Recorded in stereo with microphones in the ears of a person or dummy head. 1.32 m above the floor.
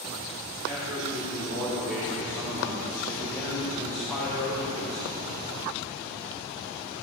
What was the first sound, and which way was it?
A man speaking, 20° right (ahead or behind).